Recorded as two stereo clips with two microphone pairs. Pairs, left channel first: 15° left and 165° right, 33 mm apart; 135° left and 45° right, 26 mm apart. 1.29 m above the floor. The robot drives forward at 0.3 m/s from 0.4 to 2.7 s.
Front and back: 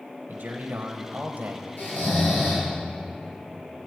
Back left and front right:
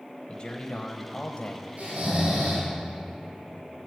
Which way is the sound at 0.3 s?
170° left.